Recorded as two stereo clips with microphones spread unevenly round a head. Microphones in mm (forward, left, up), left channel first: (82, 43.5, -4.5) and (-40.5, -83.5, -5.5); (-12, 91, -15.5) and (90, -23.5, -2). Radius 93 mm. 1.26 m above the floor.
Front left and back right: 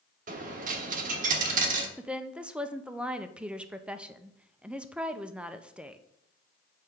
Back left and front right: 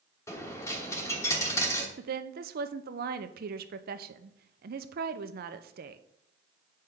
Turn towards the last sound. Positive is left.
turn(degrees=-50)